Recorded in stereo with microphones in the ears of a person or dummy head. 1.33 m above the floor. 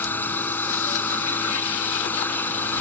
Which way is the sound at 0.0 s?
15° left (ahead or behind).